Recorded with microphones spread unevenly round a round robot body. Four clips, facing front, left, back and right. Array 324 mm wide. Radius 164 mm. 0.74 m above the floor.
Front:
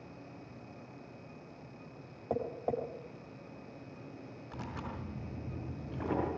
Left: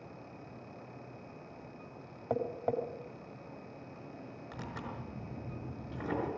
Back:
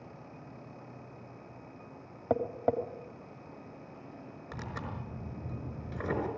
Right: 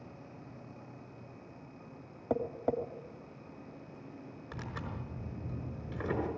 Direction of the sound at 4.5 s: 165° right.